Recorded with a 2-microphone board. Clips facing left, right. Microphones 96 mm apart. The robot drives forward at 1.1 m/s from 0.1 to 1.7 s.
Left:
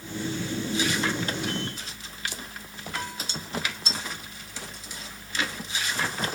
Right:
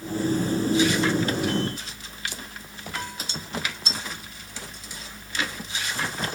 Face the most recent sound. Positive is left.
No sound to turn to.